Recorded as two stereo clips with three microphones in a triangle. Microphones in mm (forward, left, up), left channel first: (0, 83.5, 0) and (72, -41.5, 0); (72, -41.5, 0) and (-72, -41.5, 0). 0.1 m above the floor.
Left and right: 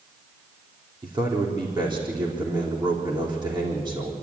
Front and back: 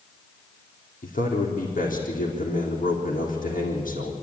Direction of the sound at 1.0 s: 5° right.